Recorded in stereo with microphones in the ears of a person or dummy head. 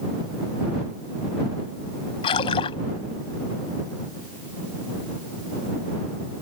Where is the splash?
30° left (ahead or behind).